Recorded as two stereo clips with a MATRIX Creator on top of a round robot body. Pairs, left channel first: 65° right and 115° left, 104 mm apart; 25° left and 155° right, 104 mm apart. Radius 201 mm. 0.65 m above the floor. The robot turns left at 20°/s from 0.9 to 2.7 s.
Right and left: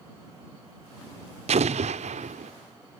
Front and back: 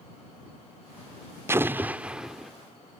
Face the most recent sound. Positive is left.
turn(degrees=110)